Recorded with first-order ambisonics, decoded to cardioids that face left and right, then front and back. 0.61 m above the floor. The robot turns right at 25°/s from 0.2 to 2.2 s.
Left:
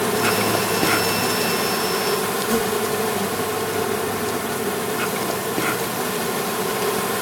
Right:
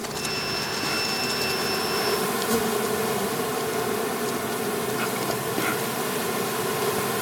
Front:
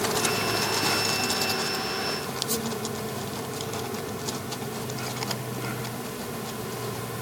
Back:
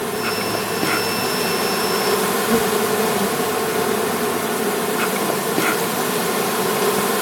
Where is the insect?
115° left, 0.7 m; by 7.2 s 165° left, 0.7 m.